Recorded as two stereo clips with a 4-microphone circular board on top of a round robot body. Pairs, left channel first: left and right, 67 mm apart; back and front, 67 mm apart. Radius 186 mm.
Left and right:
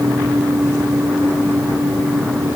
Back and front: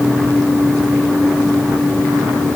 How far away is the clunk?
No clunk in this recording.